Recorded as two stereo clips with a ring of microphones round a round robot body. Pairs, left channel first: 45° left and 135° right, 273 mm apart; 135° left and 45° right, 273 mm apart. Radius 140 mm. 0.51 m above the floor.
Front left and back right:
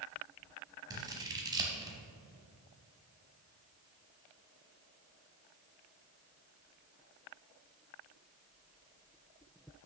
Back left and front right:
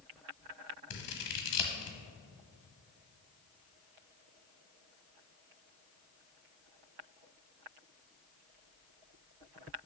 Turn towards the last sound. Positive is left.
turn(degrees=150)